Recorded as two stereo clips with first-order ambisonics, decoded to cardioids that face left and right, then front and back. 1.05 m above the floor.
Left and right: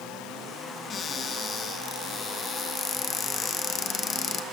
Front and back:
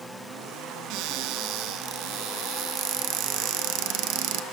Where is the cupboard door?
155° left, 0.5 m.